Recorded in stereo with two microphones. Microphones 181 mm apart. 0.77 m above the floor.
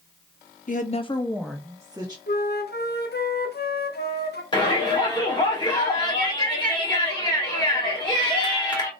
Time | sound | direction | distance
0.7 | a woman speaking | 50° left (ahead or behind) | 0.7 m
2.3 | a flute | 70° left (ahead or behind) | 0.7 m
4.5 | a shout | 25° left (ahead or behind) | 2.5 m